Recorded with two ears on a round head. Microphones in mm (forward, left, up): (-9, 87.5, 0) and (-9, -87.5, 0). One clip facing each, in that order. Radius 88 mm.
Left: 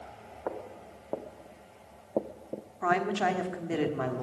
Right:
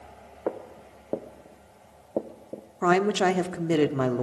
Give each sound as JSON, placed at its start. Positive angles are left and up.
{"t": 0.5, "sound": "footsteps", "side_deg": -40, "distance_m": 2.0}
{"t": 2.8, "sound": "a woman speaking", "side_deg": -55, "distance_m": 1.4}